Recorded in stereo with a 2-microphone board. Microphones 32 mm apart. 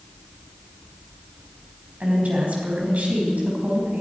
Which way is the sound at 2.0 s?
45° right (ahead or behind).